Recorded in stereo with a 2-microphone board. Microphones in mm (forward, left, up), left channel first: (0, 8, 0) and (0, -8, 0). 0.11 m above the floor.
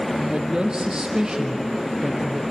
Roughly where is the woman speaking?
Right.